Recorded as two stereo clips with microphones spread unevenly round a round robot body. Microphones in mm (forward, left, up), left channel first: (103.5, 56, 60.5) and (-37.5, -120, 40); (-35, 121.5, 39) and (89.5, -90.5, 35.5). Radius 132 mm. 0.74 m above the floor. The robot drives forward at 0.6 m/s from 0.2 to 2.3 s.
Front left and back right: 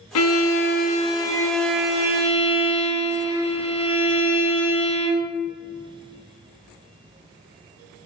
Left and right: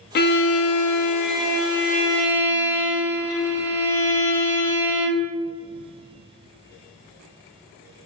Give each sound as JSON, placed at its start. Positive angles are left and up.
{"t": 0.1, "sound": "a violin", "azimuth_deg": 70, "distance_m": 0.6}